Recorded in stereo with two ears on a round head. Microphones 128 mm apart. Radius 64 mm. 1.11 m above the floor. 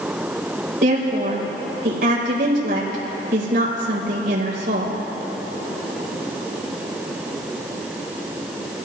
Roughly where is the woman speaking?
Right.